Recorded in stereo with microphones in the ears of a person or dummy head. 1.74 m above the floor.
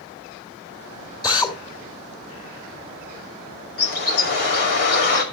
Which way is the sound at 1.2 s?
25° left (ahead or behind).